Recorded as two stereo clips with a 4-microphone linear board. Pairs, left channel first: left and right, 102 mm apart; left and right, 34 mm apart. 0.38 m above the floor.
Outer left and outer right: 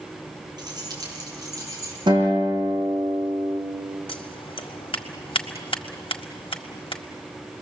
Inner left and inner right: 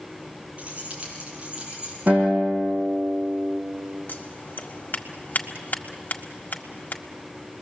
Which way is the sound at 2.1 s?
50° right (ahead or behind).